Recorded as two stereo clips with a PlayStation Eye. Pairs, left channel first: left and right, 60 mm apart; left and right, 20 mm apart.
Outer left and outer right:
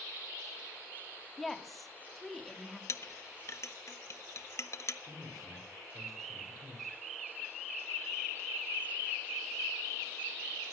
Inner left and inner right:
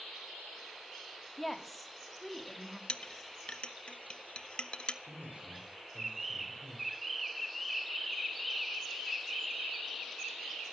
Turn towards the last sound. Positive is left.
turn(degrees=-65)  # may be behind; listen again after turning